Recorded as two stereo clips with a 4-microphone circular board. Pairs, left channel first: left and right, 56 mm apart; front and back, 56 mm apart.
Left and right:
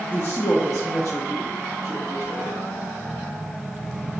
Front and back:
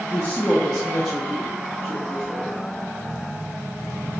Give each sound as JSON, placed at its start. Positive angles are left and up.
{"t": 0.1, "sound": "a woman speaking", "azimuth_deg": 40, "distance_m": 0.6}